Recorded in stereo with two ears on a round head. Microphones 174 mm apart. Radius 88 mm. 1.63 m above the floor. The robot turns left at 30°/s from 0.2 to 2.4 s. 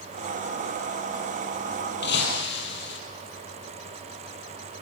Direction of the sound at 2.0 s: 65° left (ahead or behind).